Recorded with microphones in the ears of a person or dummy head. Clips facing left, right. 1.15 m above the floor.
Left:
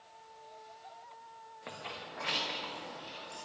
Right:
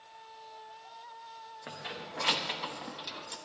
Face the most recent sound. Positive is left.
turn(degrees=-70)  # may be behind; listen again after turning